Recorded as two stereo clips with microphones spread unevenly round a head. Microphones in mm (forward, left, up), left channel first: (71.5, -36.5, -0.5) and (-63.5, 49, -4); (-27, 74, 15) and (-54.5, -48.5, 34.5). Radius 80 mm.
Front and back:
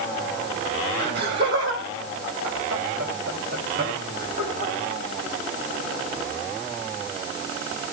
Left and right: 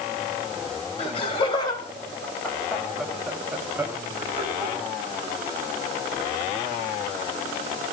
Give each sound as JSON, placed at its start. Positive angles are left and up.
{"t": 1.0, "sound": "laughter", "azimuth_deg": 120, "distance_m": 3.5}